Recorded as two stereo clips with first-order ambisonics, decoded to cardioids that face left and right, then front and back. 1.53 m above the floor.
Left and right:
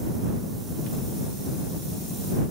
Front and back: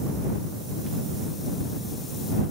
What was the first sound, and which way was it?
Only background noise.